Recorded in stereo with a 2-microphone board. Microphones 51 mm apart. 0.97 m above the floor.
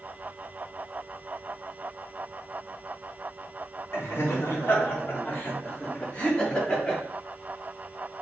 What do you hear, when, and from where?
3.9 s laughter: 60° left (ahead or behind), 3 m; by 7.0 s 20° left (ahead or behind), 2.5 m